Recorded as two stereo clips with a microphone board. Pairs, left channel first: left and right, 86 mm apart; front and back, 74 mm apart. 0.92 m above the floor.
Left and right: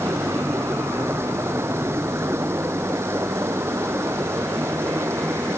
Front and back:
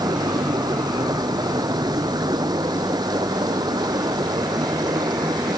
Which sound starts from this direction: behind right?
Running water, at 0.0 s.